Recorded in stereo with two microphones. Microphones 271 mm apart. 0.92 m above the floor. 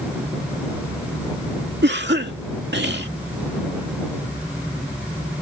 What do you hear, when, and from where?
1.8 s a cough: 40° right (ahead or behind)